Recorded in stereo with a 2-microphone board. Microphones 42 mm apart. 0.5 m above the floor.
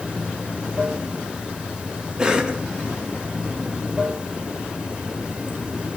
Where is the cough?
20° right (ahead or behind), 0.7 m.